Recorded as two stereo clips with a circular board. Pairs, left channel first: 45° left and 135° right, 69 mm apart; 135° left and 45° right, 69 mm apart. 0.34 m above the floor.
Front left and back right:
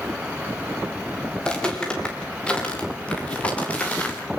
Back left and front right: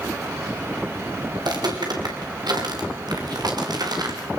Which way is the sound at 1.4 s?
30° right.